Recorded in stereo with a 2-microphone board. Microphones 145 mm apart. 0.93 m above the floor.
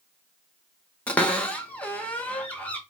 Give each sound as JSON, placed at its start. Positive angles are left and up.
{"t": 1.1, "sound": "a cupboard door", "side_deg": 10, "distance_m": 0.6}